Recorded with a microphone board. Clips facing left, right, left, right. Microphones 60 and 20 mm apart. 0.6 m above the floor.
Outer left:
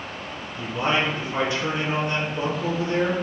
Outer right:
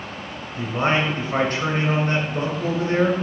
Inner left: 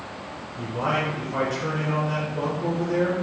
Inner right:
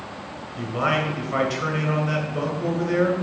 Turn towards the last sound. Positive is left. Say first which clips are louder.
# outer right 2 dB, inner right 2 dB
turn(degrees=-55)  # may be behind; listen again after turning